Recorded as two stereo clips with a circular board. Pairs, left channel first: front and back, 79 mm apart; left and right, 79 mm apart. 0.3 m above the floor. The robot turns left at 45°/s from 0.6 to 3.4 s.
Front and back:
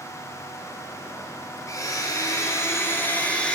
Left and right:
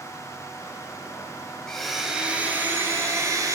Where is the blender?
10° left, 1.9 m; by 3.6 s 70° right, 1.9 m.